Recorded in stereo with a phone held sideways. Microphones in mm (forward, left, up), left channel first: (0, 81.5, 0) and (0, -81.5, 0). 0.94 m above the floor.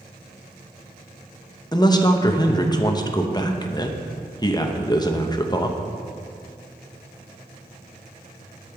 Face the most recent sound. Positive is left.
turn(degrees=25)  # may be behind; listen again after turning